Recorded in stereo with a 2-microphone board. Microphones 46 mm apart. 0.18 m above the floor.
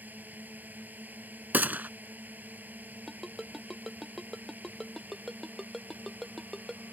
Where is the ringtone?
Centre (ahead or behind).